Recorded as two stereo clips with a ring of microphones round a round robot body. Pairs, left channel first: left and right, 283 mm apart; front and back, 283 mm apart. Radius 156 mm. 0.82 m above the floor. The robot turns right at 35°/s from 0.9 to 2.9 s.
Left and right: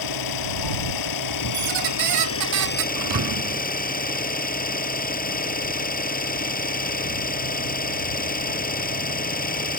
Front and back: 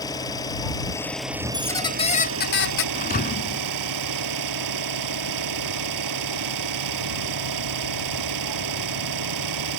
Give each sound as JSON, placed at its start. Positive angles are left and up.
{"t": 0.0, "sound": "an engine running", "azimuth_deg": 80}
{"t": 1.5, "sound": "a squeak", "azimuth_deg": -85}
{"t": 2.9, "sound": "a thud", "azimuth_deg": -60}